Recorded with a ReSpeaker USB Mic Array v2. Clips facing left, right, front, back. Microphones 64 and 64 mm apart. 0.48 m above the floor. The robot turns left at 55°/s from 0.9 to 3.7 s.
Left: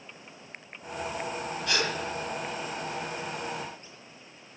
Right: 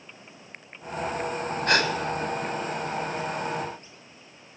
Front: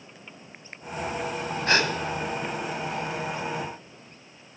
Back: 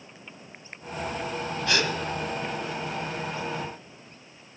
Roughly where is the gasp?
Ahead right.